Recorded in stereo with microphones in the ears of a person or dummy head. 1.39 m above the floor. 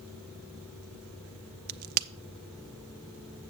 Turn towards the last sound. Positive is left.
turn(degrees=-50)  # may be behind; listen again after turning